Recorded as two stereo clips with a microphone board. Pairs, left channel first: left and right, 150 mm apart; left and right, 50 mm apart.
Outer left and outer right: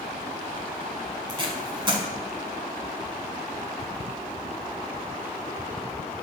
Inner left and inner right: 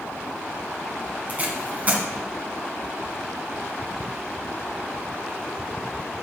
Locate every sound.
1.3 s tape being pulled: 35° right (ahead or behind), 1.5 m